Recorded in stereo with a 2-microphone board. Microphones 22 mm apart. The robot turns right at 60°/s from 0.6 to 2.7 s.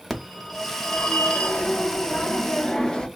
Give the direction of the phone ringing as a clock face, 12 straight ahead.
11 o'clock.